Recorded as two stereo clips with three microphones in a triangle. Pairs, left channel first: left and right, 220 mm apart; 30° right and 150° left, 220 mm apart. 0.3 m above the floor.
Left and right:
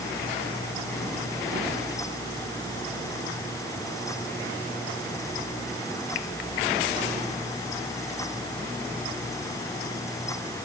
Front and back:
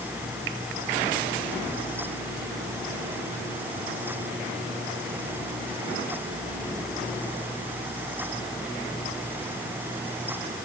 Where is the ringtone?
No ringtone in this recording.